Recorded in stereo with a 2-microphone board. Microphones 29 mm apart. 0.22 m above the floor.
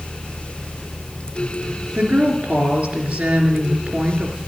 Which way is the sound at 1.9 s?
65° right (ahead or behind).